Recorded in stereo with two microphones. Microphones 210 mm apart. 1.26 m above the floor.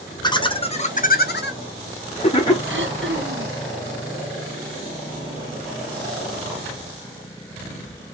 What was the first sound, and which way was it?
Laughter, 20° left (ahead or behind).